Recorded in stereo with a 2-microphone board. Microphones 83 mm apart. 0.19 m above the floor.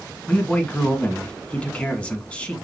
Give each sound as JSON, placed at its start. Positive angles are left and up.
{"t": 0.3, "sound": "a man speaking", "side_deg": 15, "distance_m": 1.6}